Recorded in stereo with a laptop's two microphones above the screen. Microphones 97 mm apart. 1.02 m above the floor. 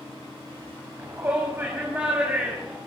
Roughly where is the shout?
Right.